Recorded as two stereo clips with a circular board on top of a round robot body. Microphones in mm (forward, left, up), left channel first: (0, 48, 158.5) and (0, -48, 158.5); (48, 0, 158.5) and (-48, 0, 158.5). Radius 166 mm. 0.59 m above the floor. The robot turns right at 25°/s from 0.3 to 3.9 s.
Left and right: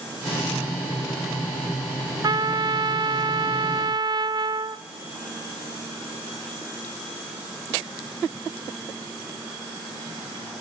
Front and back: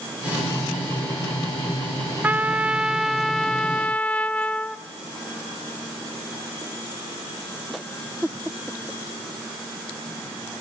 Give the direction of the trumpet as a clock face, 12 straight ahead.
4 o'clock.